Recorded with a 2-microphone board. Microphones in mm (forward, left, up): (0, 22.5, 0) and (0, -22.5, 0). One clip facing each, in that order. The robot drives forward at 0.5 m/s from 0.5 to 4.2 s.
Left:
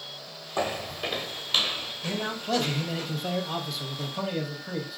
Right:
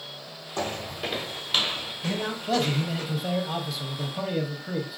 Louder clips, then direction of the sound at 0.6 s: Left 1 dB; 15° left (ahead or behind).